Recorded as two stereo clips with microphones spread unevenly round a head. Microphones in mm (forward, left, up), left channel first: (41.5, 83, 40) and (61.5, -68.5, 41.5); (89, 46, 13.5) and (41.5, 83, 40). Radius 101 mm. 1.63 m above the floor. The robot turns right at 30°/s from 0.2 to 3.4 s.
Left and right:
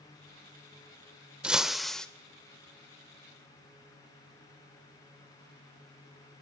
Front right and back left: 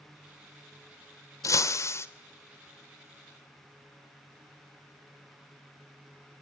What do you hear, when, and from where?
1.4 s breaking glass: 5° right, 1.5 m; by 2.1 s 15° left, 1.5 m